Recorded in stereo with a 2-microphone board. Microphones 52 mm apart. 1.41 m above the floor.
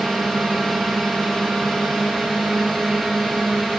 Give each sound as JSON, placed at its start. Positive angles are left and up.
{"t": 0.0, "sound": "a drone", "side_deg": 5}